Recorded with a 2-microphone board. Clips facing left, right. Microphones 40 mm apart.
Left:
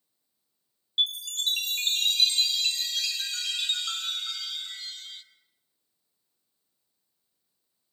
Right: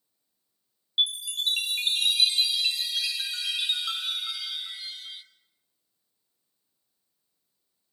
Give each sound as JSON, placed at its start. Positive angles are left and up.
{"t": 1.0, "sound": "a chime", "side_deg": -10, "distance_m": 1.3}